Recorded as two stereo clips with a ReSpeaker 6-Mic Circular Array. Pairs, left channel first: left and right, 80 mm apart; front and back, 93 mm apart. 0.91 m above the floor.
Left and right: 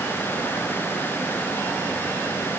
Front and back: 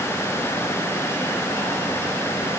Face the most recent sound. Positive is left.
No sound to turn to.